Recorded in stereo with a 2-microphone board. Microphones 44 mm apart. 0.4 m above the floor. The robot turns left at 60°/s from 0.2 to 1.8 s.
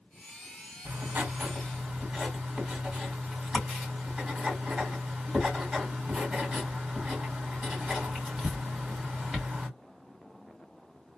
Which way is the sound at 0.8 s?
110° right.